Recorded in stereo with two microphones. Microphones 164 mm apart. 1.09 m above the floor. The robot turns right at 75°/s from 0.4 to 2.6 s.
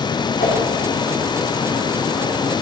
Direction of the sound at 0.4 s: 85° left.